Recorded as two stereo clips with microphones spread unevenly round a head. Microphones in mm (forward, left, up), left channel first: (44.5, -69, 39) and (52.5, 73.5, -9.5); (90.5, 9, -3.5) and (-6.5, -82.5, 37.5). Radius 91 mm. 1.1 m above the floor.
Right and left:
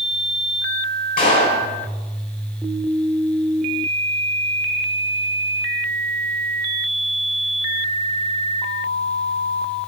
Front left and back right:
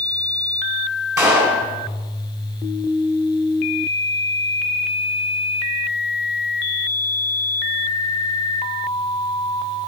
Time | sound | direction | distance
1.2 | a clap | 70° right | 4.5 m